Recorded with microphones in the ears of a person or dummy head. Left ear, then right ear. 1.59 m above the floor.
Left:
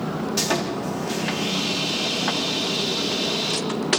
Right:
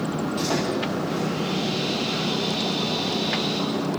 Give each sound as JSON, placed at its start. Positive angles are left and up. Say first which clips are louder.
{"t": 0.4, "sound": "sawing", "louder": "left 1 dB", "side_deg": 80, "distance_m": 3.0}